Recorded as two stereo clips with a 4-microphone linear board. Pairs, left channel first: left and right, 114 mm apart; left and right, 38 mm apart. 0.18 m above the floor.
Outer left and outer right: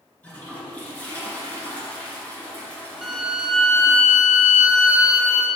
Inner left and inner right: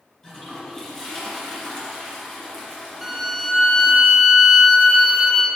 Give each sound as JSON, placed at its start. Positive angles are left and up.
{"t": 0.2, "sound": "a toilet flushing", "side_deg": 15, "distance_m": 3.0}
{"t": 3.0, "sound": "a violin", "side_deg": -5, "distance_m": 1.2}